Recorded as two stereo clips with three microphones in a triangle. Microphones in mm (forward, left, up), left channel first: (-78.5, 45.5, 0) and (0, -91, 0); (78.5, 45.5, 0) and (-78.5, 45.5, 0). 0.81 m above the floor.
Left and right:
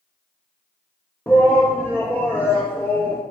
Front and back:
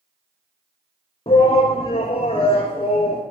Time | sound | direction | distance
1.3 | a shout | 45° left | 0.5 m